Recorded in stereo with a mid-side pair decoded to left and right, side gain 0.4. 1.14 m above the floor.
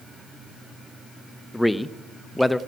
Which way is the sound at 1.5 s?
10° left.